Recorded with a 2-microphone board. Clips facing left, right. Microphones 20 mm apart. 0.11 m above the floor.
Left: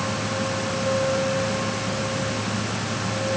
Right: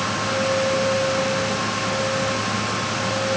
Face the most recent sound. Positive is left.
No sound to turn to.